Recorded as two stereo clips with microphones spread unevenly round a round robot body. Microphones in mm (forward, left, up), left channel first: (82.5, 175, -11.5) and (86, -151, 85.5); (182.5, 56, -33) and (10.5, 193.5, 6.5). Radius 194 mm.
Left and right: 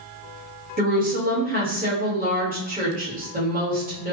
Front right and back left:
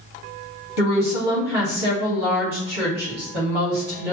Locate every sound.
0.8 s a woman speaking: 165° right, 1.7 m